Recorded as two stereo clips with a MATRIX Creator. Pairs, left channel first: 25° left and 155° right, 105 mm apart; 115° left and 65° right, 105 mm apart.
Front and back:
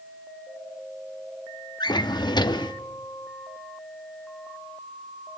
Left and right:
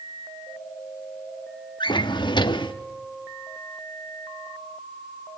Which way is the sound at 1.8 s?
70° left.